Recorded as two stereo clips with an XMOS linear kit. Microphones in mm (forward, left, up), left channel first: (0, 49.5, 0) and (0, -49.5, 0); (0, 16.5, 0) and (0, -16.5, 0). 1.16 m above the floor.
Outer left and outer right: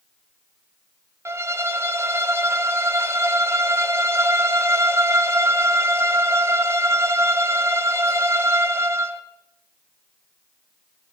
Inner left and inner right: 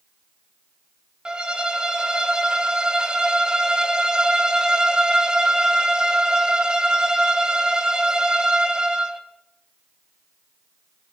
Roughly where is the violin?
Right.